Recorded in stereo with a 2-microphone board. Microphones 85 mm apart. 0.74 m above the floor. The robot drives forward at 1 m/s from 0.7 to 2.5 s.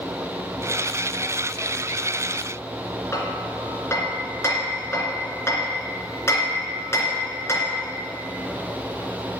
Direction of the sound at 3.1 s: 30° left (ahead or behind).